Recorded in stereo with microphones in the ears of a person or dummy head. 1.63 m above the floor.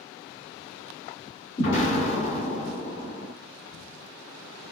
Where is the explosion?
55° left (ahead or behind), 2 m.